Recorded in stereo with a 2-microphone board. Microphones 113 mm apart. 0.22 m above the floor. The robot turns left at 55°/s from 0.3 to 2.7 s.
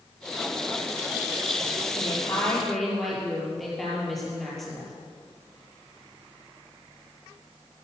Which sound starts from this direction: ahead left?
A woman speaking, at 1.9 s.